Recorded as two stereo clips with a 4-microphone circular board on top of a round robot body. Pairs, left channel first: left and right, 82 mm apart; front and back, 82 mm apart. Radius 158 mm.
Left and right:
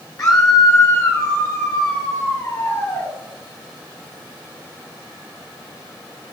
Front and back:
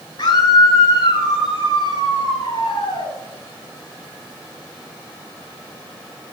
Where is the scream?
40° left, 7.5 m; by 3.1 s 35° left, 10 m.